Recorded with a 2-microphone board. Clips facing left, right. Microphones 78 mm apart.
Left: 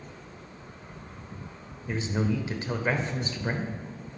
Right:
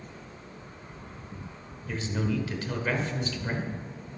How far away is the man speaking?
About 0.9 m.